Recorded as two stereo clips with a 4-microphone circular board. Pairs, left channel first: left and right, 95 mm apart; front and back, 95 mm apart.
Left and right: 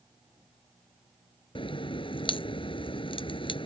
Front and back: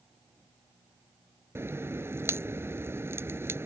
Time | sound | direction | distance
1.6 | a crack | 115° left | ?